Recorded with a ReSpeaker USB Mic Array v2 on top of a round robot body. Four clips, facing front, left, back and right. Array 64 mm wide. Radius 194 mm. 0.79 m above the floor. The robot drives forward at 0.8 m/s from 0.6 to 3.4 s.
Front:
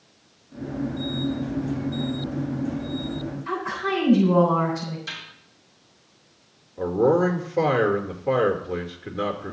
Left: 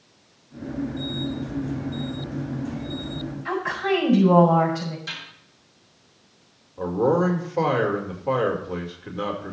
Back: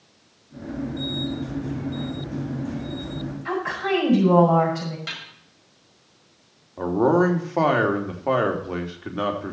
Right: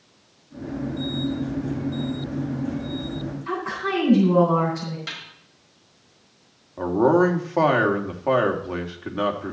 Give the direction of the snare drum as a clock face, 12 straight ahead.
5 o'clock.